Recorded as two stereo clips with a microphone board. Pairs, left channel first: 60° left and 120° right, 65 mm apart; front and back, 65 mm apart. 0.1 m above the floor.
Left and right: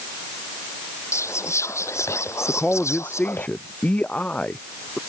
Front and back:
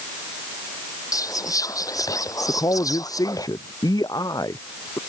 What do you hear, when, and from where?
1.1 s whispering: 20° left
2.5 s a man speaking: 10° right